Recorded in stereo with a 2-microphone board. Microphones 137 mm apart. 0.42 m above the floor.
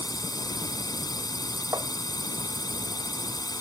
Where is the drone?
30° left (ahead or behind).